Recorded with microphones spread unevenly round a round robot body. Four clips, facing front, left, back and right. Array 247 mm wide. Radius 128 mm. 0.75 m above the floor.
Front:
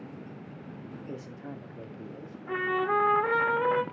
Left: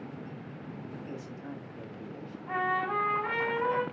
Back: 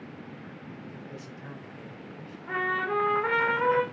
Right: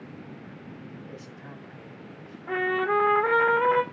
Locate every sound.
1.1 s a man speaking: 5° left, 1.9 m; by 2.4 s 30° left, 1.6 m
2.5 s a trumpet: 55° right, 1.3 m